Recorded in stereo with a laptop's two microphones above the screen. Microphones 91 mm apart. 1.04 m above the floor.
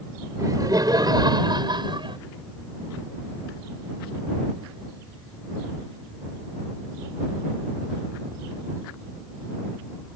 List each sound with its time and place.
0.4 s laughter: 40° right (ahead or behind); by 2.2 s 60° right (ahead or behind)